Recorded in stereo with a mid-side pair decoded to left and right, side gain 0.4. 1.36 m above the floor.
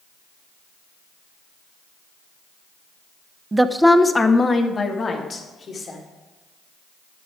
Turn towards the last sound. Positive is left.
turn(degrees=50)